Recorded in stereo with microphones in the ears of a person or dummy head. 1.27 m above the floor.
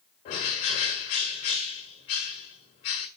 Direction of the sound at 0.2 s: 30° left (ahead or behind).